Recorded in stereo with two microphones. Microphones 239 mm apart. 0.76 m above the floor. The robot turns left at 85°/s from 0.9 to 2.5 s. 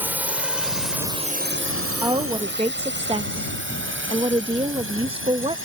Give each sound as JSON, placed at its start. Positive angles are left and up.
{"t": 0.0, "sound": "a drone", "side_deg": -5}
{"t": 2.0, "sound": "a woman speaking", "side_deg": -15}